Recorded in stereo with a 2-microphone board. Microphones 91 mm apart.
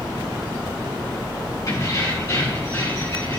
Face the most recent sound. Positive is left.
turn(degrees=30)  # may be behind; listen again after turning